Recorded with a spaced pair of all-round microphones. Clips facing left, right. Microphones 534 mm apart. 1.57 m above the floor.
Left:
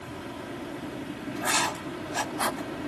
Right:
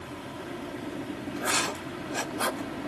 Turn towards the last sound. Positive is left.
turn(degrees=20)  # may be behind; listen again after turning